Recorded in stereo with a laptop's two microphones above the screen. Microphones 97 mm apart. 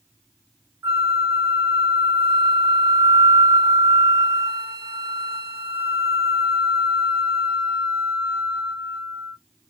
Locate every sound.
0.8 s a flute: 25° right (ahead or behind), 1.0 m